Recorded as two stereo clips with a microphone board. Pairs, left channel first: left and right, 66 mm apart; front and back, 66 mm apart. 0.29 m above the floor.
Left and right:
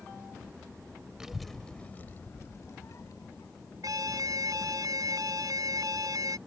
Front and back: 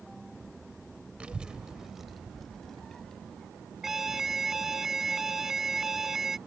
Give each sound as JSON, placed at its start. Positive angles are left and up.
{"t": 1.2, "sound": "a child speaking", "azimuth_deg": -150}
{"t": 3.8, "sound": "an alarm", "azimuth_deg": -95}